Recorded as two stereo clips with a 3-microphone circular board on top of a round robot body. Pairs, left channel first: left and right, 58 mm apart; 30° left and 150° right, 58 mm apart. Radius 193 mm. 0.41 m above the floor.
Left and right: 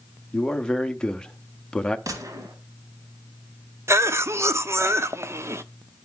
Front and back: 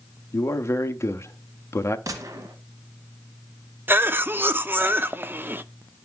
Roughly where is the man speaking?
Ahead.